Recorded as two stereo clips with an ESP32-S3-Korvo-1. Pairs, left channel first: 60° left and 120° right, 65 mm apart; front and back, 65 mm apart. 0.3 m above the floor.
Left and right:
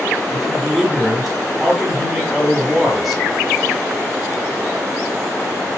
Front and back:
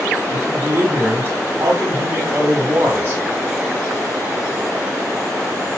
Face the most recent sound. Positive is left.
turn(degrees=150)